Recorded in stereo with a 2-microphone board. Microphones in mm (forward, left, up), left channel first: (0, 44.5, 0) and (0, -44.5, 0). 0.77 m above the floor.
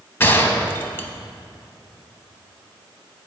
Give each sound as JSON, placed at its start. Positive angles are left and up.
{"t": 0.2, "sound": "a gunshot", "side_deg": 25, "distance_m": 0.8}